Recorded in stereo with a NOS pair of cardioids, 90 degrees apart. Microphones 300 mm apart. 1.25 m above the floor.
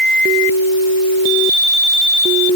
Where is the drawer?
No drawer in this recording.